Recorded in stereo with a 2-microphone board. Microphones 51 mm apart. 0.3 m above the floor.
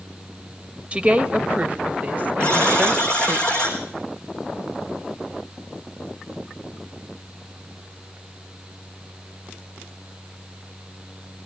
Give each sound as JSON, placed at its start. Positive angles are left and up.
{"t": 0.9, "sound": "a woman speaking", "side_deg": -25, "distance_m": 1.1}
{"t": 2.4, "sound": "a buzzer", "side_deg": 20, "distance_m": 4.5}